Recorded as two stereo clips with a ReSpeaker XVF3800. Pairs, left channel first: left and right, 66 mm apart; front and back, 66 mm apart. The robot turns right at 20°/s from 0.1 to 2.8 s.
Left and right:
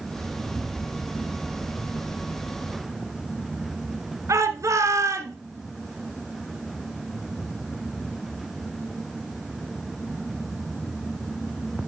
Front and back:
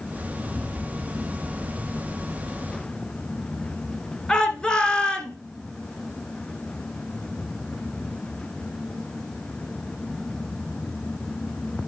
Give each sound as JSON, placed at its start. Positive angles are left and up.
{"t": 4.3, "sound": "a shout", "azimuth_deg": -75, "distance_m": 2.0}